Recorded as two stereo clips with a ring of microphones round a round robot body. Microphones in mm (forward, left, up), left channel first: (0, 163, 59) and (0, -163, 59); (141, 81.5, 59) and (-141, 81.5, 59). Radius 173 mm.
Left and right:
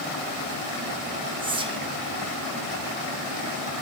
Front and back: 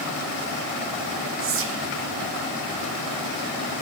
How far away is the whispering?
About 0.6 m.